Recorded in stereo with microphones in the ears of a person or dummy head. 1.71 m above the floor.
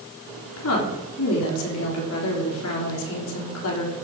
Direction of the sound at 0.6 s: 80° left.